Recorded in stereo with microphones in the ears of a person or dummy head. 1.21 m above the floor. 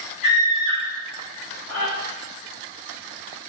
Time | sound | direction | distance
0.2 | a scream | 40° left (ahead or behind) | 0.7 m